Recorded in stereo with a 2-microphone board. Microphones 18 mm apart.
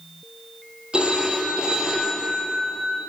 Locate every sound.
0.9 s a phone ringing: 50° right (ahead or behind), 2.5 m